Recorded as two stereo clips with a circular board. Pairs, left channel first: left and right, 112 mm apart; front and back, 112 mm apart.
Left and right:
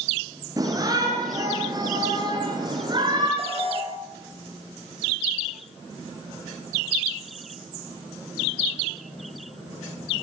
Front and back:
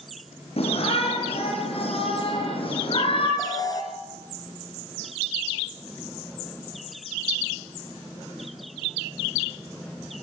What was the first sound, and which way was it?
A shout, 30° right.